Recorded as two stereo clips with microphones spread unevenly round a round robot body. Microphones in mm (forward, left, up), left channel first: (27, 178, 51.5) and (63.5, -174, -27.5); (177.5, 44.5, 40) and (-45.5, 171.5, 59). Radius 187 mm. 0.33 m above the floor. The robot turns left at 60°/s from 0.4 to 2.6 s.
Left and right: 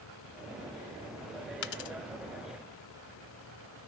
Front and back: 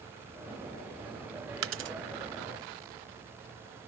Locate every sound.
1.6 s a dropped coin: 120° left, 0.6 m; by 2.0 s 95° left, 0.6 m